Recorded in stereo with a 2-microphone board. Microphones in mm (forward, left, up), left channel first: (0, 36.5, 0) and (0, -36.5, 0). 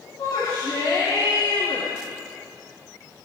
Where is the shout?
80° left, 9 m.